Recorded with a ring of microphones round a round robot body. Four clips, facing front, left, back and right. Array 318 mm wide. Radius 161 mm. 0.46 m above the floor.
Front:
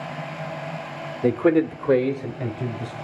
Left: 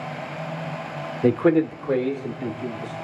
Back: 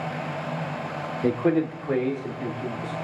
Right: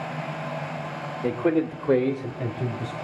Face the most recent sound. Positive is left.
turn(degrees=-50)